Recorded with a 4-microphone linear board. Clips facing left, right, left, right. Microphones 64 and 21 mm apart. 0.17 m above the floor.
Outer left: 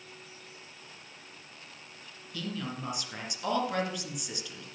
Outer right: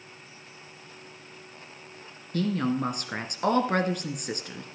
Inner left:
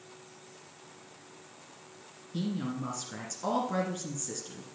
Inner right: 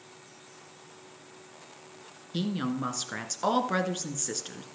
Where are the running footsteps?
No running footsteps in this recording.